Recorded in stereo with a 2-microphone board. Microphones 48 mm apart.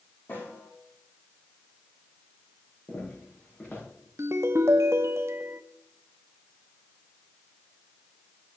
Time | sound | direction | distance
0.3 | a snare drum | 45° left (ahead or behind) | 7 m
2.9 | footsteps | 40° left (ahead or behind) | 6 m
4.2 | a ringtone | 65° right (ahead or behind) | 0.8 m